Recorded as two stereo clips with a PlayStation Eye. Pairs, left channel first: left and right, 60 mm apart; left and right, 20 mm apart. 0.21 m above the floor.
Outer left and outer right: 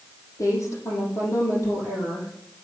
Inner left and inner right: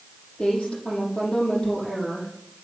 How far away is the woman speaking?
About 7 m.